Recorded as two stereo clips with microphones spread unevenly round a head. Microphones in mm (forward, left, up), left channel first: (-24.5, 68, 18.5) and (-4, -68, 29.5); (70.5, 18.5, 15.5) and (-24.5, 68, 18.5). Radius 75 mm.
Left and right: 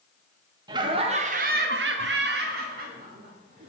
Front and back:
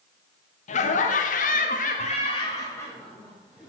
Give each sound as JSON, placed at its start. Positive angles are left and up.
{"t": 0.7, "sound": "laughter", "azimuth_deg": -15, "distance_m": 0.9}